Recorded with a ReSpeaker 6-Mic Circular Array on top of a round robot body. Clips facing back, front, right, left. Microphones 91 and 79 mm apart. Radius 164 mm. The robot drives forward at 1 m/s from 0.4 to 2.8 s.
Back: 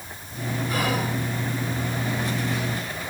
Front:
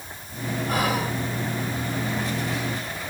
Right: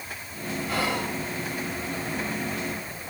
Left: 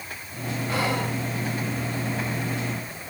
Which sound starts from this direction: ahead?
Whispering, at 0.7 s.